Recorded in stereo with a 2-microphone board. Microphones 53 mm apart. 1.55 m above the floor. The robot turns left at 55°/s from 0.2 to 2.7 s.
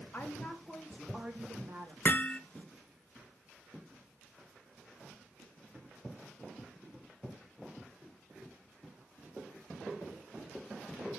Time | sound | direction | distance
0.1 | a woman speaking | 40° left | 2.5 m
2.0 | hammering | 40° left (ahead or behind) | 1.0 m